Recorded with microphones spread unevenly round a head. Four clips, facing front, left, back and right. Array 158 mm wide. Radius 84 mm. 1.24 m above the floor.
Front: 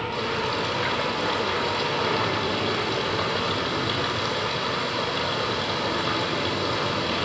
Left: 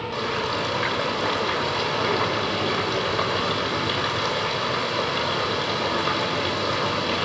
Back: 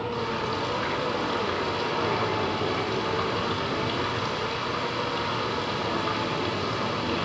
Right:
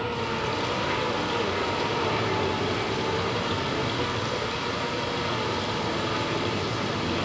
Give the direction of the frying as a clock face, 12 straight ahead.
10 o'clock.